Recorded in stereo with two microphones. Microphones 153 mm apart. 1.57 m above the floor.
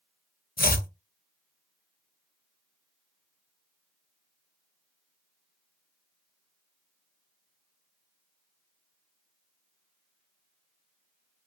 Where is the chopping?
75° left (ahead or behind), 0.5 m.